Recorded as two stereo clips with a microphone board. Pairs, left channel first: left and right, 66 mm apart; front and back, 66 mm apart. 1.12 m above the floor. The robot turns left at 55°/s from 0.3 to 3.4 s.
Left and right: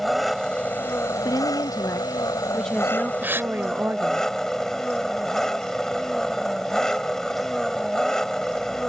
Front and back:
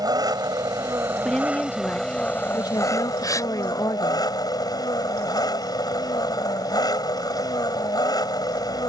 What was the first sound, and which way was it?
An engine running, straight behind.